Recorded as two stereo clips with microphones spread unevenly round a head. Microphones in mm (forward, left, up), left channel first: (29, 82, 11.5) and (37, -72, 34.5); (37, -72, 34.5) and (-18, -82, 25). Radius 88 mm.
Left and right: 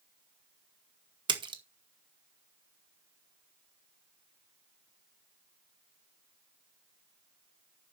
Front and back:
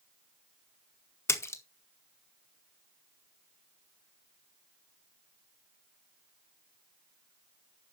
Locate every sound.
1.3 s a splash: 25° right, 1.7 m